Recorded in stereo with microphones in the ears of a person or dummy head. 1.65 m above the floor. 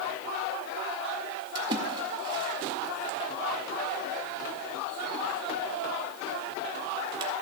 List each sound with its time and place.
1.6 s a splash: 30° right (ahead or behind), 1.8 m